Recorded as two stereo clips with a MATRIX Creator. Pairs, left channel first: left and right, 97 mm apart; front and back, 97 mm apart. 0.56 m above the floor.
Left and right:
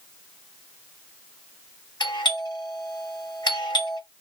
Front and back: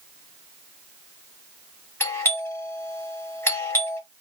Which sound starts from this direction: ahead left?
A doorbell, at 2.0 s.